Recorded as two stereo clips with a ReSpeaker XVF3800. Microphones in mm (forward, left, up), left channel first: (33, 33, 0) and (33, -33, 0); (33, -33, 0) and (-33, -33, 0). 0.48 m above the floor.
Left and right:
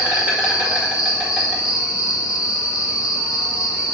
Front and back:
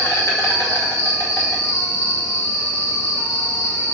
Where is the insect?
20° right, 1.8 m.